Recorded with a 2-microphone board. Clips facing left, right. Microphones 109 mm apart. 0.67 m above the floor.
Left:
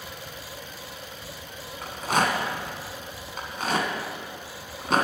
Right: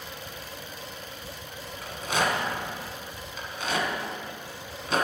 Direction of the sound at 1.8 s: 50° left (ahead or behind).